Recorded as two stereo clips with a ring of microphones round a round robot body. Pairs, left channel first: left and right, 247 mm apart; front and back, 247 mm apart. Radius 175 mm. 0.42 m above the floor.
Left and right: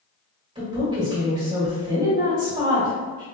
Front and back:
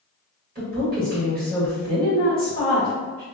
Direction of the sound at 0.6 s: 150° right.